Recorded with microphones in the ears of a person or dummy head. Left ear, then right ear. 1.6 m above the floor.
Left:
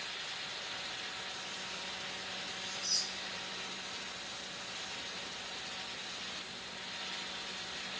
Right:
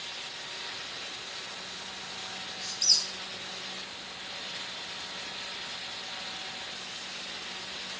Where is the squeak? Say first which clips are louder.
Right 10 dB; 50° right (ahead or behind), 2 m.